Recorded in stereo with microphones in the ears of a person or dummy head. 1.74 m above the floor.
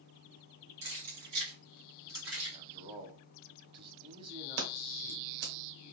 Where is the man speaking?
30° right (ahead or behind), 1.0 m.